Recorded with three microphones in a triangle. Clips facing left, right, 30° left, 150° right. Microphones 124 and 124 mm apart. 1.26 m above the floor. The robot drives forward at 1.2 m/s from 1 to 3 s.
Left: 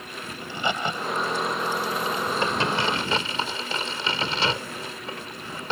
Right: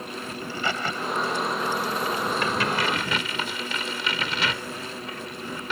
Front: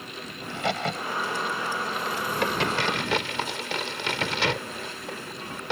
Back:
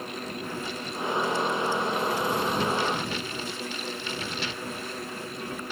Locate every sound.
0.4 s a crack: 20° left; by 5.7 s 30° left